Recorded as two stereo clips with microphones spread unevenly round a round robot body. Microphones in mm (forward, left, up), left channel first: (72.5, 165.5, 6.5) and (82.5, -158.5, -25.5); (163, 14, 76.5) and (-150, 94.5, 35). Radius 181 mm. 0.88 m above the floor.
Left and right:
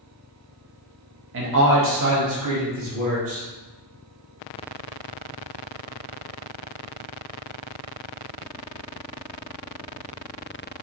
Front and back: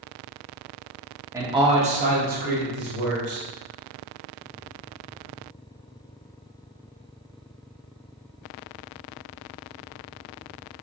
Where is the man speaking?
120° right, 0.8 m; by 3.5 s 140° right, 1.8 m.